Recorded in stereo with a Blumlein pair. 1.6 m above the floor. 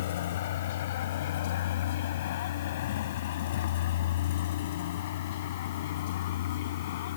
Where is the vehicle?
55° left.